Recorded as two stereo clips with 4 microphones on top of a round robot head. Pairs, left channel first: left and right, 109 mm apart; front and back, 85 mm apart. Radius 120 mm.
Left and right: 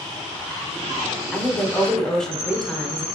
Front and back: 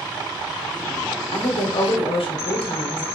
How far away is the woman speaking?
About 0.7 m.